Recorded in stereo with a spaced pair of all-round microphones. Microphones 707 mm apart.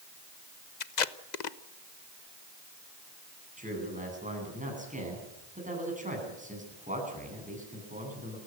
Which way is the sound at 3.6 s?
10° right (ahead or behind).